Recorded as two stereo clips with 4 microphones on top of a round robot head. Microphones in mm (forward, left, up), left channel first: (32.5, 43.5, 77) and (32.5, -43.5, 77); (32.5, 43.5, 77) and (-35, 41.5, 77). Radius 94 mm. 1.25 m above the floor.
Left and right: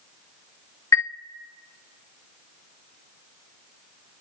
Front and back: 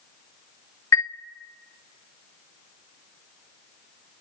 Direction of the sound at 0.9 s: 40° left.